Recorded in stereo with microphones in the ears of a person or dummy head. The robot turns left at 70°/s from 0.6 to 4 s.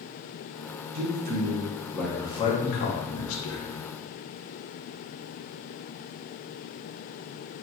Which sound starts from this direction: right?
A man speaking, at 0.9 s.